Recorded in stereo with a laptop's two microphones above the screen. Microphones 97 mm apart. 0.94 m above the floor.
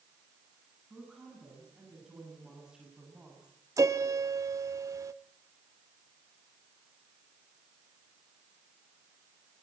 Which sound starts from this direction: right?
A piano, at 3.8 s.